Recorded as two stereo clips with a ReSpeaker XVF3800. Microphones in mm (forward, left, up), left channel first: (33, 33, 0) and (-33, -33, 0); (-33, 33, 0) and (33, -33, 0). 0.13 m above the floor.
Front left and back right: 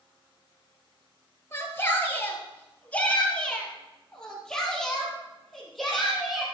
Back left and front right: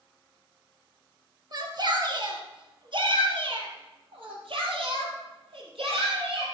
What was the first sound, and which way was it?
A shout, 15° right.